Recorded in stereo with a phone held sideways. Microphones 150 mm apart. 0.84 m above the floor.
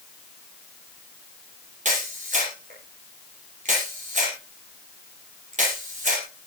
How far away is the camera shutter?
About 8.5 m.